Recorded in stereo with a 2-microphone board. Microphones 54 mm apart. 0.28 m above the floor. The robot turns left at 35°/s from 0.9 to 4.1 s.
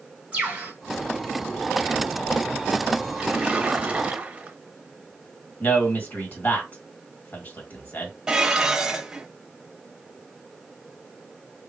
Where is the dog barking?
No dog barking in this recording.